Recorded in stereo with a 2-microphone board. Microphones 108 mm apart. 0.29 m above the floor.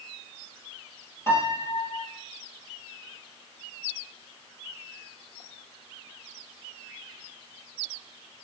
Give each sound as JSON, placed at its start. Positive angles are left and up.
{"t": 1.3, "sound": "a piano", "side_deg": 25, "distance_m": 1.4}